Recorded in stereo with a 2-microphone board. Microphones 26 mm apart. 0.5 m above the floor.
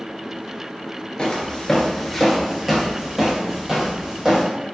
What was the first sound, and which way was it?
Footsteps, 35° left (ahead or behind).